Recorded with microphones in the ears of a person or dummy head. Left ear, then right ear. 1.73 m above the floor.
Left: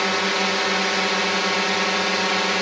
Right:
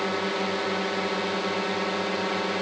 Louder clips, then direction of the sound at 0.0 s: Left 6 dB; 50° left (ahead or behind).